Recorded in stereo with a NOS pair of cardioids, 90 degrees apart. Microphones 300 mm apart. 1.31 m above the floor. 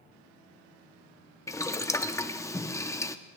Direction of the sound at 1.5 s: 10° left.